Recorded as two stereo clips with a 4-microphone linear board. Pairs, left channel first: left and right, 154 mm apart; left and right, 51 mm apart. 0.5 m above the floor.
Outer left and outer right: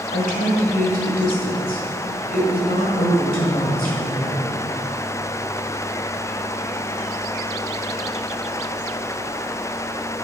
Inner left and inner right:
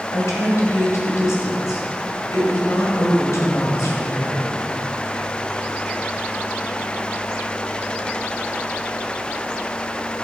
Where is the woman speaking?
70° left (ahead or behind), 2 m.